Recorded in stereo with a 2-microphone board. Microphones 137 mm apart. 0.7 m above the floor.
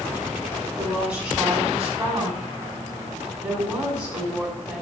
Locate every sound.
0.8 s a woman speaking: 10° right (ahead or behind), 6 m